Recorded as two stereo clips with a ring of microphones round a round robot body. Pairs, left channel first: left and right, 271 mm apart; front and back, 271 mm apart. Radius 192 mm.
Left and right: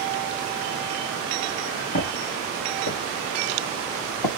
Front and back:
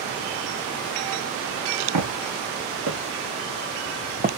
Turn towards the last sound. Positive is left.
turn(degrees=120)